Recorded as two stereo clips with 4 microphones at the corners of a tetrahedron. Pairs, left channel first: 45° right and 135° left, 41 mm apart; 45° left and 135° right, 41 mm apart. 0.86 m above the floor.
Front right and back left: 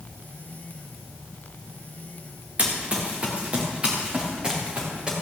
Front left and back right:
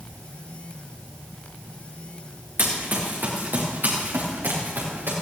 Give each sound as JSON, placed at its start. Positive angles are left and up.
{"t": 2.6, "sound": "running footsteps", "azimuth_deg": -170, "distance_m": 3.5}